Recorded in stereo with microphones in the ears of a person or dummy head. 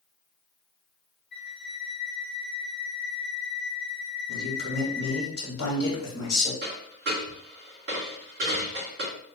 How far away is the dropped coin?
About 1.9 m.